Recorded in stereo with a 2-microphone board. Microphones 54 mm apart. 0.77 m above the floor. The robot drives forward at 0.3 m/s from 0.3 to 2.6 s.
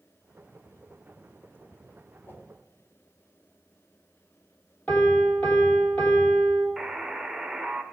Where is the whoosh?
40° left (ahead or behind), 1.3 m.